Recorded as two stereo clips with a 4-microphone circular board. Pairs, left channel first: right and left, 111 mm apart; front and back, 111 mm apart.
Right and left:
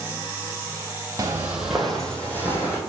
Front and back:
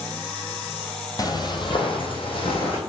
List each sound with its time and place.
1.2 s footsteps: 35° left, 1.0 m; by 2.8 s 25° right, 1.9 m